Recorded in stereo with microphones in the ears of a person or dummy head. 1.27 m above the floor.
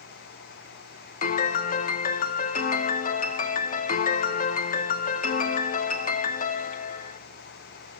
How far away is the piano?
About 0.7 m.